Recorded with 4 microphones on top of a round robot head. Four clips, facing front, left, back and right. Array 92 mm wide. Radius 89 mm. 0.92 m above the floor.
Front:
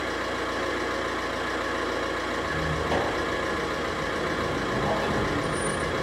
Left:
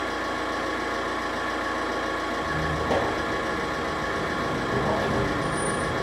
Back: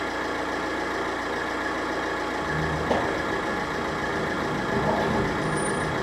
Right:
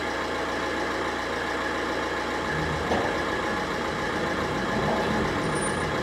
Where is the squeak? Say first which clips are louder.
Left 1 dB, back 1 dB; 165° left, 0.8 m.